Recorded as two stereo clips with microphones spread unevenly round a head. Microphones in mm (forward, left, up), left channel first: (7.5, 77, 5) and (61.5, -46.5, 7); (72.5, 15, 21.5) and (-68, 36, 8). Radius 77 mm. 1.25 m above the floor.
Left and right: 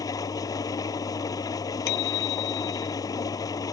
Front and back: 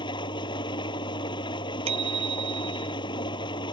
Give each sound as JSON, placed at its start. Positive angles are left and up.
{"t": 0.0, "sound": "an engine running", "azimuth_deg": 50}
{"t": 1.9, "sound": "a bicycle bell", "azimuth_deg": 120}